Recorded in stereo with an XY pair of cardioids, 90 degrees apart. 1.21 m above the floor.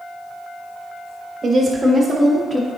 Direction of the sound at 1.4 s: 40° right.